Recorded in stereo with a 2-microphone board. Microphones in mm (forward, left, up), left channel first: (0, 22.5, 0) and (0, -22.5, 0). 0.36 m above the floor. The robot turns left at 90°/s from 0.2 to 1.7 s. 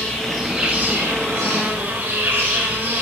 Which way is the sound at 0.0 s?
20° left.